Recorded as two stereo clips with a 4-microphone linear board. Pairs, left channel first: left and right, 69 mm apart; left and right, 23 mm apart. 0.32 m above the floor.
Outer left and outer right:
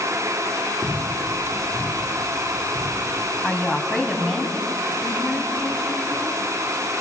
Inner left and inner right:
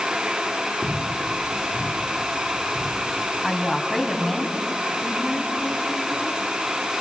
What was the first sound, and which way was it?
Footsteps, 35° right (ahead or behind).